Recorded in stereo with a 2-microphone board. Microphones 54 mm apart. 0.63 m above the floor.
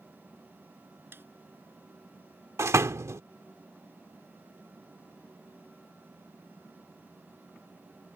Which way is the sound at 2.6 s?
65° right (ahead or behind).